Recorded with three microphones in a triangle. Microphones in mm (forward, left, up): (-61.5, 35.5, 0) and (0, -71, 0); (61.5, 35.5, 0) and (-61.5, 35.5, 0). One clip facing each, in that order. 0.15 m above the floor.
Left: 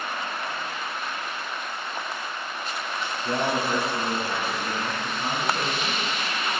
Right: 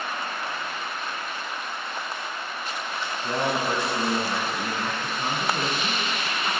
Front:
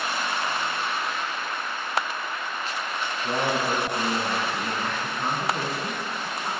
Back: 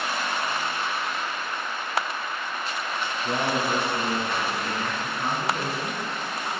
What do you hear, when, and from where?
3.2 s a man speaking: 50° right, 1.2 m